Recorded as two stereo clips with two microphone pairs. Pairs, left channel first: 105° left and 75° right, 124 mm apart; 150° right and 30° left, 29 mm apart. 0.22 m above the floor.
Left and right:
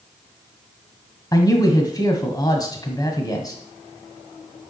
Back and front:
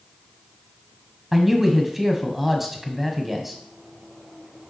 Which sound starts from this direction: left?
A man speaking, at 1.3 s.